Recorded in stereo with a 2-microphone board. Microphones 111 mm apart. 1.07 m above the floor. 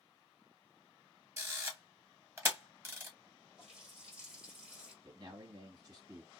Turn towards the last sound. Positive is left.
turn(degrees=-40)  # may be behind; listen again after turning